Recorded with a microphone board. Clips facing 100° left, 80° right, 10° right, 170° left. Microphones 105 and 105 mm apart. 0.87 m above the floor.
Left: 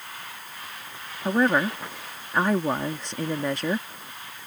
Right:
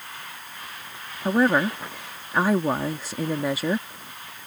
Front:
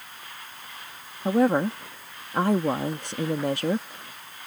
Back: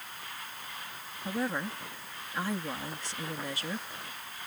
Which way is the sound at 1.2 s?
5° left.